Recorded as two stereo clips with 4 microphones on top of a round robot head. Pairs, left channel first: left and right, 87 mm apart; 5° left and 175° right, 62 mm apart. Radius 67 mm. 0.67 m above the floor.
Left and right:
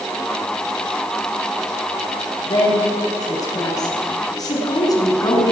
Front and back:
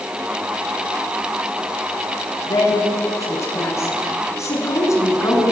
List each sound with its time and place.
2.5 s a woman speaking: 45° left, 10 m; by 5.5 s 40° left, 6.5 m